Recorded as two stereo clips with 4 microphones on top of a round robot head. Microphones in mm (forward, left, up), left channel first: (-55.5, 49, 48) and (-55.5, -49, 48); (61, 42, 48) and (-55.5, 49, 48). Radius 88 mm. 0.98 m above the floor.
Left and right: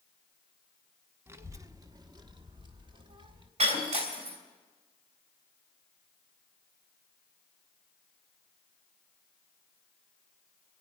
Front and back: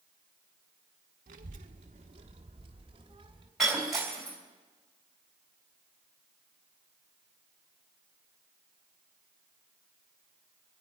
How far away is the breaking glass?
About 3.5 m.